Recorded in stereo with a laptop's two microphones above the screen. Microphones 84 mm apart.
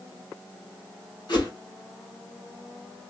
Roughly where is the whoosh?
Left.